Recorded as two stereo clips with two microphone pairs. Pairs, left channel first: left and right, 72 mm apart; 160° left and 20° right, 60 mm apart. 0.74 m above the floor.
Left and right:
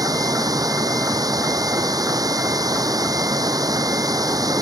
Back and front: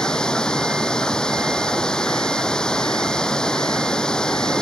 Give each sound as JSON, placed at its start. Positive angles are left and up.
{"t": 0.0, "sound": "running water", "azimuth_deg": -120}